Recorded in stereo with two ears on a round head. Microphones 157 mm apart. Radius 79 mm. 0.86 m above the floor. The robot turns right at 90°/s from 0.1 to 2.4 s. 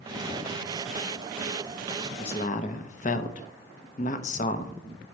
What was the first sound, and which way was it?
A man speaking, 30° left (ahead or behind).